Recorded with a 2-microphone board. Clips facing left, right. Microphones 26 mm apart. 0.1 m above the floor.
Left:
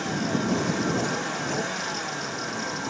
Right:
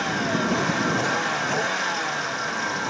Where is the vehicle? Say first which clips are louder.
Right 3 dB; 20° right (ahead or behind).